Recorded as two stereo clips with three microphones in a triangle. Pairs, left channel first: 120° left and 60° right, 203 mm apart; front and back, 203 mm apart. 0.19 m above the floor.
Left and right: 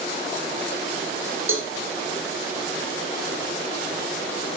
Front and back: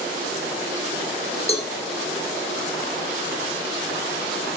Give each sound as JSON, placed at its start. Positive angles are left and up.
{"t": 1.5, "sound": "a cowbell", "azimuth_deg": -60, "distance_m": 4.0}